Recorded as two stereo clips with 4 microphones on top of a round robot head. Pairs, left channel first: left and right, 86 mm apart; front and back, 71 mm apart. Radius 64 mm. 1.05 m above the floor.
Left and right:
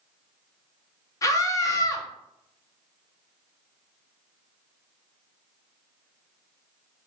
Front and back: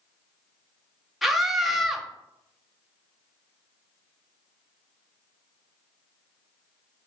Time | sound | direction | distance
1.2 | a scream | 95° left | 0.8 m